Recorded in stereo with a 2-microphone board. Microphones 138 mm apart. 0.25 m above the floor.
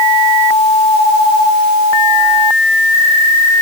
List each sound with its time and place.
Only background noise.